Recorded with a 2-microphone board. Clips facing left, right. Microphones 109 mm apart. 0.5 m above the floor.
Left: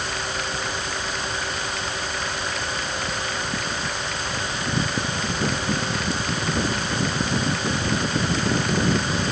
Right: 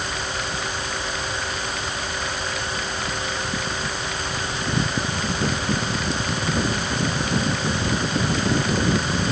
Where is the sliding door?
I don't hear a sliding door.